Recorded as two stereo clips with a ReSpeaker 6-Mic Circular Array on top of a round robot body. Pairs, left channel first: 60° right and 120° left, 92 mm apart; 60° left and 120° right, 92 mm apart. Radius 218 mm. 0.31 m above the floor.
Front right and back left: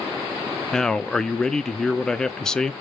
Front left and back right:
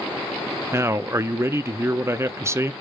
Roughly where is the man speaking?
Behind right.